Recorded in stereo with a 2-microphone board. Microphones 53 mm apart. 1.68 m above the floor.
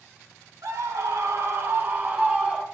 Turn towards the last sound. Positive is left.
turn(degrees=-10)  # may be behind; listen again after turning